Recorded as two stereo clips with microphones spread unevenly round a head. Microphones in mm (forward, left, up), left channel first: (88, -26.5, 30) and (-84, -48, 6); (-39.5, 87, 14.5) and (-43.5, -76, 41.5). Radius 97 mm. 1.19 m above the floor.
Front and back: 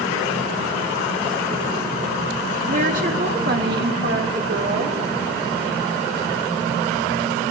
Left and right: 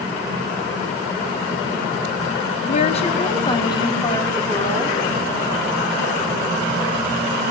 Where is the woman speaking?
135° left, 2.5 m; by 5.0 s 165° left, 4.5 m.